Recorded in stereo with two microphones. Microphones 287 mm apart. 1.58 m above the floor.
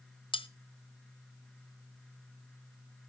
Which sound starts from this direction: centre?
Cutlery clinking, at 0.3 s.